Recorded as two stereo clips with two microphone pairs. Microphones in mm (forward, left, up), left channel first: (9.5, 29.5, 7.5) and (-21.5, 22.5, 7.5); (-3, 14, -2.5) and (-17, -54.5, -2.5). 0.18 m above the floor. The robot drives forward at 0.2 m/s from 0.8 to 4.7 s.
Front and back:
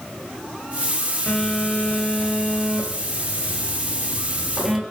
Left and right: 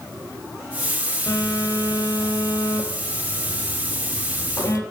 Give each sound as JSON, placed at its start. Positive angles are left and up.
{"t": 1.3, "sound": "a phone buzzing", "azimuth_deg": 65, "distance_m": 0.8}